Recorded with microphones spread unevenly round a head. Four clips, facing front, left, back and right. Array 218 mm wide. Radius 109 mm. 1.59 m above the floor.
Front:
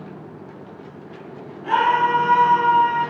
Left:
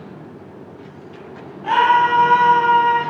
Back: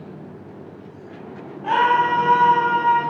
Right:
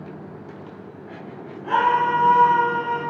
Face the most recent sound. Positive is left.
turn(degrees=125)